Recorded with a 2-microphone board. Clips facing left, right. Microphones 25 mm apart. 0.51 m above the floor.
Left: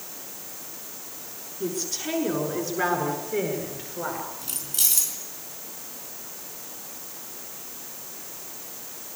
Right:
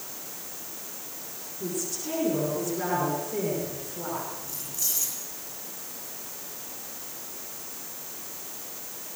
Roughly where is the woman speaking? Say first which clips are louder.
Left 3 dB; left.